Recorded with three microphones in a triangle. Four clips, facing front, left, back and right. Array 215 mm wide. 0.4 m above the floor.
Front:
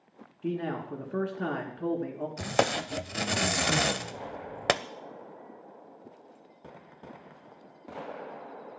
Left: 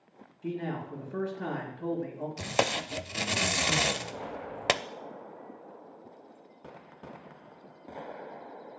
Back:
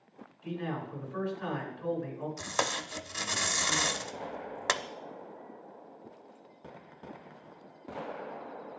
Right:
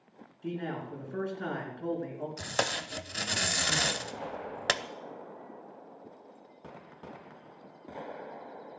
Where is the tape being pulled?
15° left, 0.5 m.